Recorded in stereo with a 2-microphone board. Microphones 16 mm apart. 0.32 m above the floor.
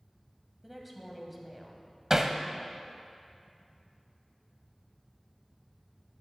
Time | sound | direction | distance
0.6 | a woman speaking | centre (ahead or behind) | 1.9 m
2.1 | hammering | 25° right (ahead or behind) | 0.7 m